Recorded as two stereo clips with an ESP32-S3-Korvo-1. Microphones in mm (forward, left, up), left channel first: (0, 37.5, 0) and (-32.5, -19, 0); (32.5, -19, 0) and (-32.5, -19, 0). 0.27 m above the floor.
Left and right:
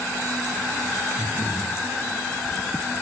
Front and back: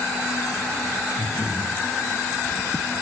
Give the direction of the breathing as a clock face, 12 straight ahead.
3 o'clock.